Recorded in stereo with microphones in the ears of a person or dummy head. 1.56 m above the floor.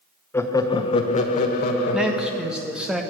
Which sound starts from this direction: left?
Laughter, at 0.3 s.